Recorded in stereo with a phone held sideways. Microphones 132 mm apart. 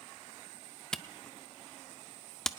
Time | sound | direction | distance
0.9 | a camera shutter | 5° left (ahead or behind) | 0.5 m